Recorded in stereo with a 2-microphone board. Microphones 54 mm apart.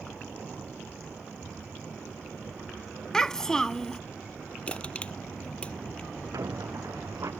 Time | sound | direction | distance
3.1 | a child speaking | 10° left (ahead or behind) | ?
4.7 | crushing | 25° left (ahead or behind) | ?
6.3 | a squeak | 80° right | ?